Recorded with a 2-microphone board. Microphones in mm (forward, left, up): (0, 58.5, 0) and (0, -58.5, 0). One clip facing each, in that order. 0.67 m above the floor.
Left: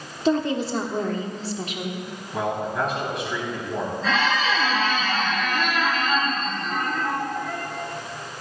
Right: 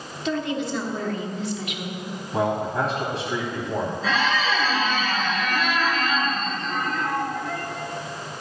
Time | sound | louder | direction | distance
0.2 | a woman speaking | left 4 dB | 35° left (ahead or behind) | 1.1 m
2.3 | a man speaking | right 2 dB | 35° right (ahead or behind) | 4 m
4.0 | a squeak | left 2 dB | centre (ahead or behind) | 2.5 m